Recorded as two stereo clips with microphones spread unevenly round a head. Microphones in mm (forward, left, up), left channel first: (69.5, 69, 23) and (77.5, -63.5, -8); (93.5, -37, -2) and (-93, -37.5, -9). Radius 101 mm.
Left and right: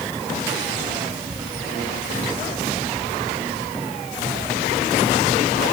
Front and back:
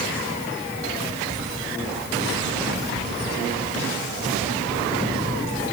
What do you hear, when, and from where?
Only background noise.